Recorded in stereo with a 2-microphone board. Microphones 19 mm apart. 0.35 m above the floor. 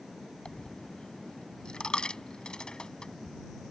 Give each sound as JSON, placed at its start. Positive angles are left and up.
{"t": 0.5, "sound": "a dropped coin", "side_deg": 50}